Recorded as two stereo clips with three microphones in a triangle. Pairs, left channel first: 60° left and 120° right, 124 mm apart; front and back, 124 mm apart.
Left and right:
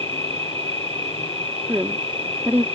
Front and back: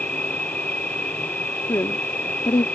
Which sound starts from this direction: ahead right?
A woman speaking, at 1.7 s.